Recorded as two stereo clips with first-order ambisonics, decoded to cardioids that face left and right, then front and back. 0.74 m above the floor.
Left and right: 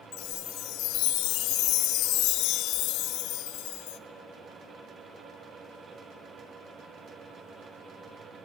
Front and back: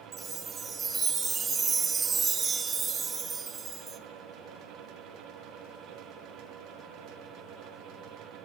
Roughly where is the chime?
Behind left.